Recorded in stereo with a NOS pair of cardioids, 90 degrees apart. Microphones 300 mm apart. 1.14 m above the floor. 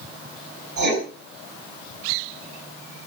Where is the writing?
70° right, 6 m.